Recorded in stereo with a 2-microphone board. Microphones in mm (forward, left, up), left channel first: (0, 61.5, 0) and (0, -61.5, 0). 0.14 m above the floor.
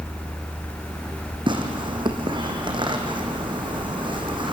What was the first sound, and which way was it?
Tearing paper, 40° right (ahead or behind).